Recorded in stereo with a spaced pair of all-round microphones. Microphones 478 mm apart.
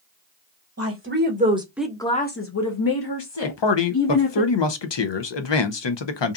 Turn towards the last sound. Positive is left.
turn(degrees=65)  # may be behind; listen again after turning